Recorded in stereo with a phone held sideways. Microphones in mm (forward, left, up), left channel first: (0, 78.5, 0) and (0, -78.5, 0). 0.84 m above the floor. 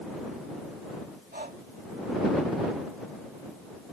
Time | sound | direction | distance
1.3 | breathing | 65° right (ahead or behind) | ?